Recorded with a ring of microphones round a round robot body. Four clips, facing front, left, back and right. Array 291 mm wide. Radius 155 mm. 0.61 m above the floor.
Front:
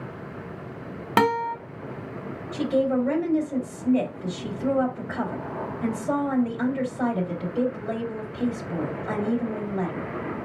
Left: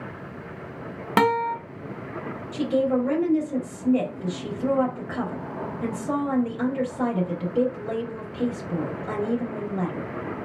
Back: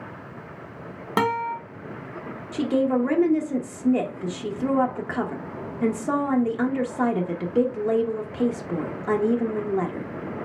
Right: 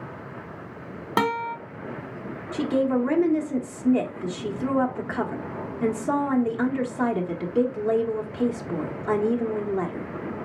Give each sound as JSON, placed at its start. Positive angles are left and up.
{"t": 1.2, "sound": "a guitar", "azimuth_deg": 45, "distance_m": 1.2}
{"t": 2.5, "sound": "a woman speaking", "azimuth_deg": -160, "distance_m": 1.3}